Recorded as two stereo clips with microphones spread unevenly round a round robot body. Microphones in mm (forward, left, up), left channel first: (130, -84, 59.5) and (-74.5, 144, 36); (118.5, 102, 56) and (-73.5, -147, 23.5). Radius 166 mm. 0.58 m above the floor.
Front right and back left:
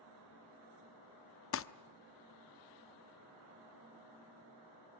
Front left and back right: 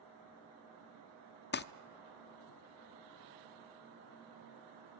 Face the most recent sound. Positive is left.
turn(degrees=-5)